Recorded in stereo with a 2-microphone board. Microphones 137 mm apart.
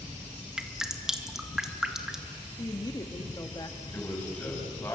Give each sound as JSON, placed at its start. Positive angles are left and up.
{"t": 0.6, "sound": "dripping", "side_deg": -5, "distance_m": 1.9}
{"t": 2.6, "sound": "a woman speaking", "side_deg": 30, "distance_m": 1.6}
{"t": 3.9, "sound": "a man speaking", "side_deg": 10, "distance_m": 9.0}